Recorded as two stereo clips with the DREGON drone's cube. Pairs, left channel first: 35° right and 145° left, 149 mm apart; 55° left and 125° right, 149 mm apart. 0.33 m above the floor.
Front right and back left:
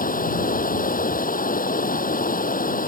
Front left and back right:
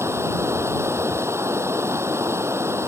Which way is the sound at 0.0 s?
50° right.